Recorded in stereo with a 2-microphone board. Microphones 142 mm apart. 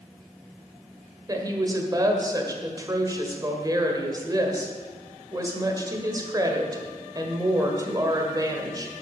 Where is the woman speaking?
25° right (ahead or behind), 1.7 m.